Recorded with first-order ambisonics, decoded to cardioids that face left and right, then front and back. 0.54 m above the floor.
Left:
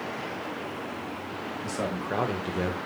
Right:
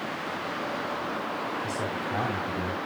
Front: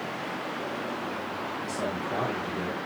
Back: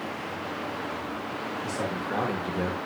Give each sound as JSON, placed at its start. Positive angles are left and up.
{"t": 1.6, "sound": "a man speaking", "azimuth_deg": 100, "distance_m": 2.5}